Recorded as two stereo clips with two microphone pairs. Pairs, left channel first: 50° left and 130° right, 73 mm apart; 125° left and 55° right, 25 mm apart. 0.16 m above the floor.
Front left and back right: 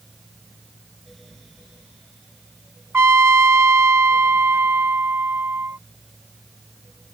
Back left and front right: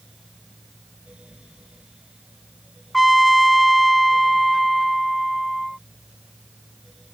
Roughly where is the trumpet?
Behind right.